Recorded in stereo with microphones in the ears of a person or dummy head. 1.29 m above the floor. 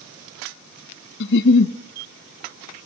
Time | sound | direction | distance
1.2 | a giggle | 65° left (ahead or behind) | 1.0 m